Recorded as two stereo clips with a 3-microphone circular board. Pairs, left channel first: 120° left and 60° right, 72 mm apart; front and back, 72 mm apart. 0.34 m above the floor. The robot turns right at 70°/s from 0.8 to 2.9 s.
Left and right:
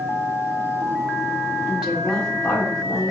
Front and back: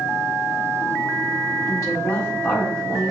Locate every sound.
1.7 s a woman speaking: 5° left, 1.4 m; by 3.1 s 90° left, 1.4 m